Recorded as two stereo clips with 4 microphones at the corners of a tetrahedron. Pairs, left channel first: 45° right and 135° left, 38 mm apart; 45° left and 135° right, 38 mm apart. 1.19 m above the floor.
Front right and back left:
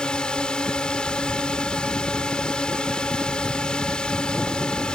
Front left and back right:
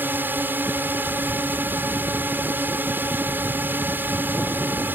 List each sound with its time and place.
0.0 s a drone: 110° right